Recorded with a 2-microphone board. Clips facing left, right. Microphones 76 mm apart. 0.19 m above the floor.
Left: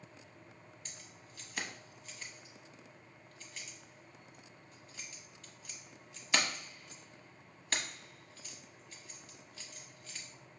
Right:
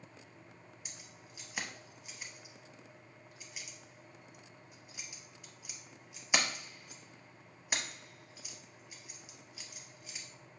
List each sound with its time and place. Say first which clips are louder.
0.8 s keys jangling: even; 10° right (ahead or behind), 0.7 m